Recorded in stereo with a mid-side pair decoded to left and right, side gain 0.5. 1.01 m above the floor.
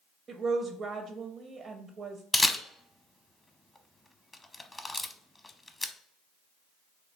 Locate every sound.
0.3 s a woman speaking: 50° right, 0.5 m
2.3 s a camera shutter: 10° left, 0.8 m